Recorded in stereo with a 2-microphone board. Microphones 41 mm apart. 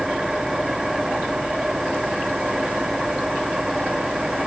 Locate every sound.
0.0 s an engine running: 10° right (ahead or behind)